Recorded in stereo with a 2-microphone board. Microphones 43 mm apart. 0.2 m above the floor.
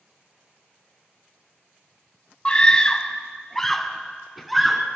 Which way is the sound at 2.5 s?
25° left (ahead or behind).